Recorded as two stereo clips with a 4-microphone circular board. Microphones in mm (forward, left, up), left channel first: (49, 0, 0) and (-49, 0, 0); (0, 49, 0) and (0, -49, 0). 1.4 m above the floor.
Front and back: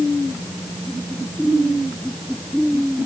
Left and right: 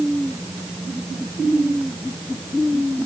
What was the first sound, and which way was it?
Only background noise.